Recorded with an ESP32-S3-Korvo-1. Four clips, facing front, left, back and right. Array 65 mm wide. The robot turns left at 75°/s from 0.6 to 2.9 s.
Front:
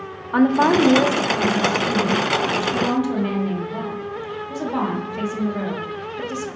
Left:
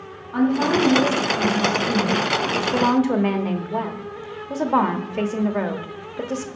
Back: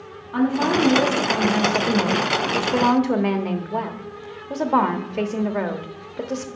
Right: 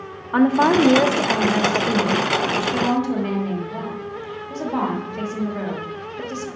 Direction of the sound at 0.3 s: 50° right.